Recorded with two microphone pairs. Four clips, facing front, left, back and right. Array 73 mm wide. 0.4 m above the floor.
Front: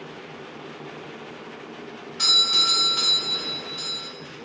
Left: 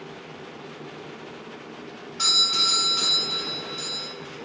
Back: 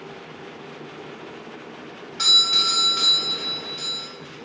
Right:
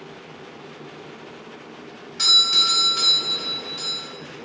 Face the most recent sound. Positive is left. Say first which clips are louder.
# right 3 dB, back 1 dB
turn(degrees=-135)